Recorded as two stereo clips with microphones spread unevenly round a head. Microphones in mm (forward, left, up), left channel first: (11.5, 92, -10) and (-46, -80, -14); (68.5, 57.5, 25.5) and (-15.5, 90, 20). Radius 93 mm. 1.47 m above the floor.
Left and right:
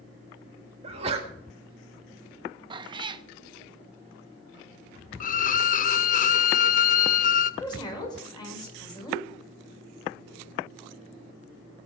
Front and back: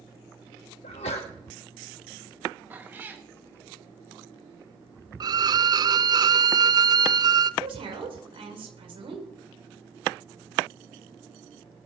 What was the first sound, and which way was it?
A sneeze, 50° right.